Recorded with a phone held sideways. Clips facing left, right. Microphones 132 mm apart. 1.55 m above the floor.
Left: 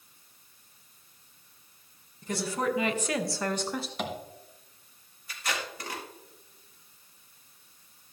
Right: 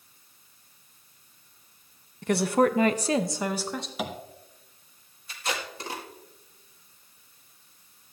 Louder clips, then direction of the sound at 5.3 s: Right 2 dB; 25° right (ahead or behind).